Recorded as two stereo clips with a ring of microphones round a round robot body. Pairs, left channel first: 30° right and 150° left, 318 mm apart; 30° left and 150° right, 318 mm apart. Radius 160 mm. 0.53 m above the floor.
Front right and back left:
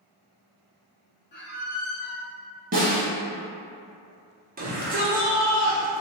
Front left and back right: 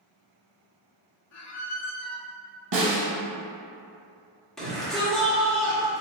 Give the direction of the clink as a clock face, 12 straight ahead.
I don't hear a clink.